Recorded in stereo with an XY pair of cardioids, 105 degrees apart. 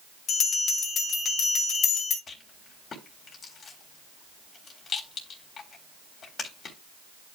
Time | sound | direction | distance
0.3 | a bell | 65° left | 3.5 m
2.3 | a rattle | 50° left | 3.5 m